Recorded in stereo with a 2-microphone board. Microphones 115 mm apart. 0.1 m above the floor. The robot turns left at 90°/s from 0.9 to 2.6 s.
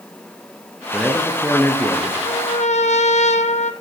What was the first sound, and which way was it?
A man speaking, centre (ahead or behind).